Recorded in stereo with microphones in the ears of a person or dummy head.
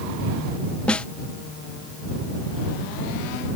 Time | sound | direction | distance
0.9 | a snare drum | centre (ahead or behind) | ?